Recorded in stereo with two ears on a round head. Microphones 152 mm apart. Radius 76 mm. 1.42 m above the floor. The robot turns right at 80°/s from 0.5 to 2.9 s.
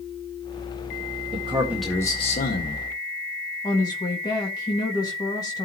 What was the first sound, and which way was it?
A man speaking, 40° right.